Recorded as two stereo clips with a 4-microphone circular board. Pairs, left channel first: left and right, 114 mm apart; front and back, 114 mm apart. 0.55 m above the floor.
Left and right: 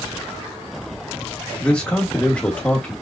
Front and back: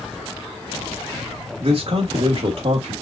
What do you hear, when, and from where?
1.6 s a man speaking: 165° left, 1.5 m